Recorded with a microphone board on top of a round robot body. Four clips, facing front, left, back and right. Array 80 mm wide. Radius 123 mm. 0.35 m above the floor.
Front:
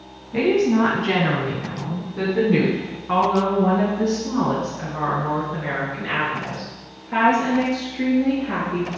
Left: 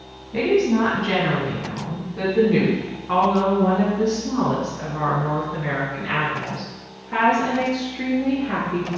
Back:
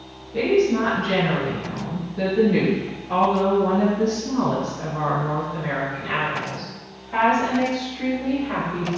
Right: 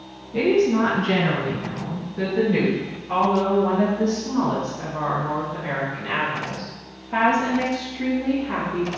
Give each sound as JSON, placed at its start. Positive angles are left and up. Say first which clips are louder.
{"t": 0.3, "sound": "a woman speaking", "louder": "even, front 1 dB", "azimuth_deg": 30, "distance_m": 3.5}